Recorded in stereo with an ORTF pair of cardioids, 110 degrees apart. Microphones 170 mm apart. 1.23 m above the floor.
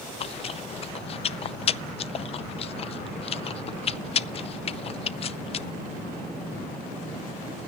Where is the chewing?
35° left, 0.5 m.